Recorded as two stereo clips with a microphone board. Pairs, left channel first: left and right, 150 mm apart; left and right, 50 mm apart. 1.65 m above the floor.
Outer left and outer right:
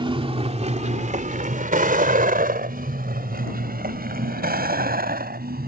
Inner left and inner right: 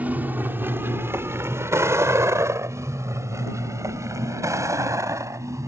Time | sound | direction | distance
0.0 | a vehicle | 35° right (ahead or behind) | ?